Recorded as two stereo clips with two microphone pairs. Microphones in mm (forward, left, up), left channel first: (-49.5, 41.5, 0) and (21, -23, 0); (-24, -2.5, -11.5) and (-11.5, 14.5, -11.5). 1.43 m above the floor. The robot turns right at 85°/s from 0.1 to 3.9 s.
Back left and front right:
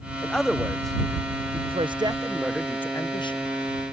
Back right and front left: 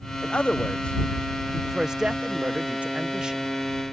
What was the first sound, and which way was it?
A man speaking, 150° right.